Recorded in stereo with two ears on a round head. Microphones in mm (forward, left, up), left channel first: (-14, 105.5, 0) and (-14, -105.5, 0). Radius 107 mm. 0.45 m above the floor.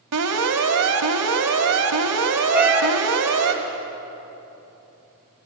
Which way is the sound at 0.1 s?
70° right (ahead or behind).